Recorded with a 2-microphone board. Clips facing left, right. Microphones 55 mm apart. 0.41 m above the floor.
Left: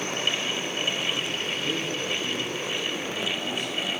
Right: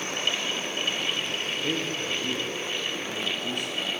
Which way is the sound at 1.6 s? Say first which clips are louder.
Right 1 dB; 50° right (ahead or behind).